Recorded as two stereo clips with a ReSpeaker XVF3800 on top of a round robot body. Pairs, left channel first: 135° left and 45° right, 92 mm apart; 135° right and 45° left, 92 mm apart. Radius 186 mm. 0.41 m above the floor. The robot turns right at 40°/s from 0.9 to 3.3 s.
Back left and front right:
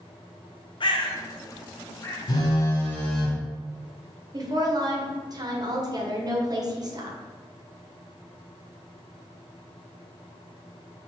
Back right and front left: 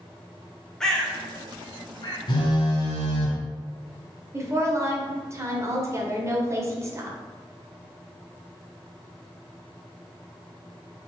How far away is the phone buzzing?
About 0.8 m.